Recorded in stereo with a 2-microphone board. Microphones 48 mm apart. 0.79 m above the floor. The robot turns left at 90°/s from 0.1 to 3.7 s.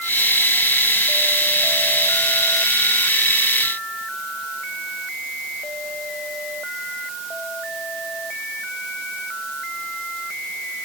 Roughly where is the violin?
No violin in this recording.